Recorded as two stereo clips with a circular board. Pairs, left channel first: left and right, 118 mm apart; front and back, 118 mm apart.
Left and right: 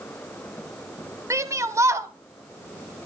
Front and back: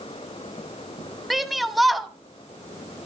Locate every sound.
1.3 s a shout: 90° right, 1.0 m